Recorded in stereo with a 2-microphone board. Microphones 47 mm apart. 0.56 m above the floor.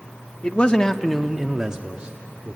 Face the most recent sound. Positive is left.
turn(degrees=-25)  # may be behind; listen again after turning